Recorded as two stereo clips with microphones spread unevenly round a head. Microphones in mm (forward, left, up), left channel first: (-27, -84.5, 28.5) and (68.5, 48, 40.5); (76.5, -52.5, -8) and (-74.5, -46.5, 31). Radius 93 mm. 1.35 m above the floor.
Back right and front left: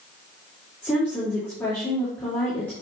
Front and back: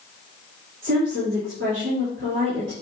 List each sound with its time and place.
0.8 s a woman speaking: 155° left, 3.5 m